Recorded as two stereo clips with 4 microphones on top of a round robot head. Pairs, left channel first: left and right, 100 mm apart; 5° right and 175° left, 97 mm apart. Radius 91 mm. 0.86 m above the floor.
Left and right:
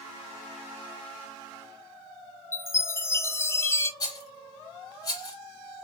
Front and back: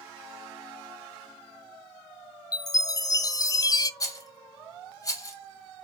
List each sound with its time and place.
2.5 s a chime: 35° left, 0.5 m
4.0 s a rattle: 40° left, 1.4 m